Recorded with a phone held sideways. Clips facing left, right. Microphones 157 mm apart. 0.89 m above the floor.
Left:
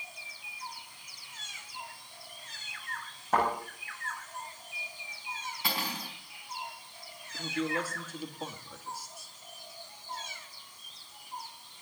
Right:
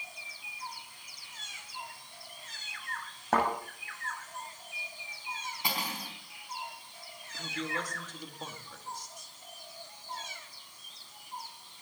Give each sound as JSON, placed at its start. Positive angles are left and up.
{"t": 3.3, "sound": "a thud", "side_deg": -85, "distance_m": 8.5}
{"t": 5.6, "sound": "cutlery clinking", "side_deg": -20, "distance_m": 4.5}
{"t": 7.3, "sound": "a man speaking", "side_deg": 10, "distance_m": 1.9}